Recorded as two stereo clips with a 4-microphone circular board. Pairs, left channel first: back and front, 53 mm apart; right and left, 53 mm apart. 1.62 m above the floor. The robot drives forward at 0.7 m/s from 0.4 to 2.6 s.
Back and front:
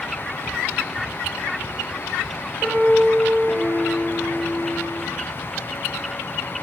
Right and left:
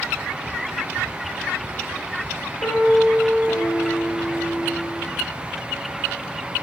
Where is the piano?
70° right, 2 m.